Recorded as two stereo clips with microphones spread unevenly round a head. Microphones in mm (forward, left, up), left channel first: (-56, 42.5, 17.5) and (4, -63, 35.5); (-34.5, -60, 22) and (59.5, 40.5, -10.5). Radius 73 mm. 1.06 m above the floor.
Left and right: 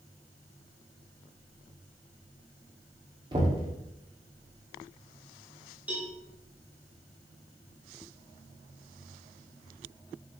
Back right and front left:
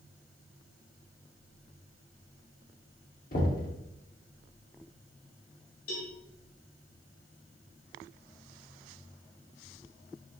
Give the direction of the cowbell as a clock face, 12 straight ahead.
5 o'clock.